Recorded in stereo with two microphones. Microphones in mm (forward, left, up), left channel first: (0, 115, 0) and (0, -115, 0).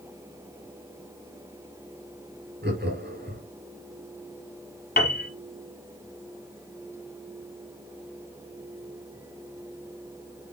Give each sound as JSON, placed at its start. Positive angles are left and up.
{"t": 2.6, "sound": "laughter", "side_deg": -45, "distance_m": 3.5}
{"t": 5.0, "sound": "a piano", "side_deg": 40, "distance_m": 1.6}